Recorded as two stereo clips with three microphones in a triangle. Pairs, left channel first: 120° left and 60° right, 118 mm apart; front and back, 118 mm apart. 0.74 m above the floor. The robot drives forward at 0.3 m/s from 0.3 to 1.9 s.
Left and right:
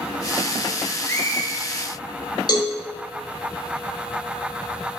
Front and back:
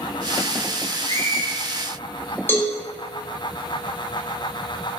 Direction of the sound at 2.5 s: 70° left.